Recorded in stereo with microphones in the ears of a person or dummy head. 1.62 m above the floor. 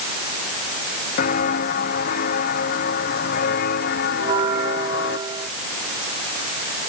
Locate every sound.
1.2 s footsteps: 45° left (ahead or behind); by 5.2 s 55° left (ahead or behind)
4.2 s a bell: 35° right (ahead or behind)